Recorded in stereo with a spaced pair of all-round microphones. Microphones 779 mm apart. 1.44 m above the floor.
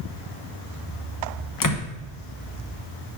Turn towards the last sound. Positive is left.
turn(degrees=25)  # may be behind; listen again after turning